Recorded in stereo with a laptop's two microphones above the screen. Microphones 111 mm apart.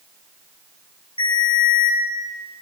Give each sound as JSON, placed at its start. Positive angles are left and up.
{"t": 1.2, "sound": "a ringtone", "side_deg": 55, "distance_m": 4.5}